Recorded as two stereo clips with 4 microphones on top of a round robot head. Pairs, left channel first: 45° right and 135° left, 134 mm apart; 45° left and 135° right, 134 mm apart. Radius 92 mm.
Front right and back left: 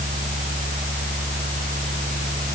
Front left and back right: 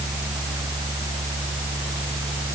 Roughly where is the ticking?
I don't hear ticking.